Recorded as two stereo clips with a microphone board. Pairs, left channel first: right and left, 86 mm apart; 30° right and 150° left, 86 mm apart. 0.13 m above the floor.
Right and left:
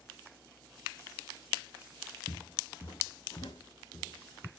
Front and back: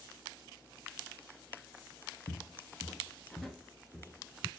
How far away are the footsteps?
About 0.7 m.